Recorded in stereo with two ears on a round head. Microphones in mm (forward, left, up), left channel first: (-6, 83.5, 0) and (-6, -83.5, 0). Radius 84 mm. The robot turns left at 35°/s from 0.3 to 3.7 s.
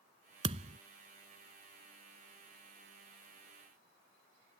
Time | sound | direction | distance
0.4 | a thud | 30° right (ahead or behind) | ?